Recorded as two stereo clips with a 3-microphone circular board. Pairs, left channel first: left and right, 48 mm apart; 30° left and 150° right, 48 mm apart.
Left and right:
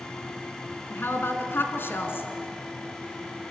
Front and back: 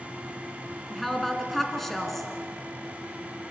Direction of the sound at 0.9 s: 115° left.